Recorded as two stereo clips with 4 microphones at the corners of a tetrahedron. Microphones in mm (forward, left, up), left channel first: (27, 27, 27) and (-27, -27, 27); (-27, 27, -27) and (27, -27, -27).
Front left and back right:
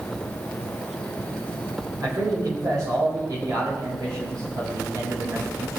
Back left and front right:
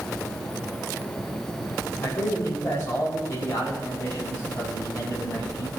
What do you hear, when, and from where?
2.0 s a man speaking: 165° right, 4.5 m